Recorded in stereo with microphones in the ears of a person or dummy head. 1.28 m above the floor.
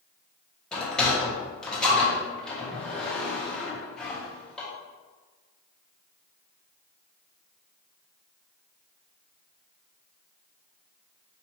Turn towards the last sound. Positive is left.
turn(degrees=10)  # may be behind; listen again after turning